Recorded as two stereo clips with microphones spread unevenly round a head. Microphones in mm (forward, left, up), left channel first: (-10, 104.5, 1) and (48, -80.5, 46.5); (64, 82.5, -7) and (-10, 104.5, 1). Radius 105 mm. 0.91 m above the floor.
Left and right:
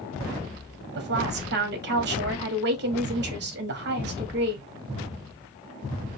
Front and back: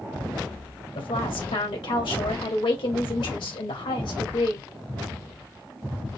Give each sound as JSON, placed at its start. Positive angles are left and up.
{"t": 0.9, "sound": "a woman speaking", "azimuth_deg": -35, "distance_m": 1.6}